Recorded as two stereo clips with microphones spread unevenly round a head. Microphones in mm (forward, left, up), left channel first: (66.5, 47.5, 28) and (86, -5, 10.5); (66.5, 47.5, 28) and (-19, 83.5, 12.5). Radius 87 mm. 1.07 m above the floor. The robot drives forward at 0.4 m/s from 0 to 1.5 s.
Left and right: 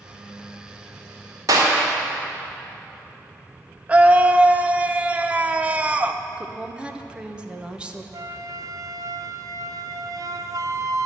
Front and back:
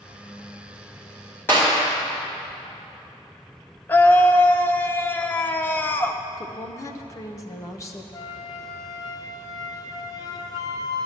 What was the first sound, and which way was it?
A clap, 100° right.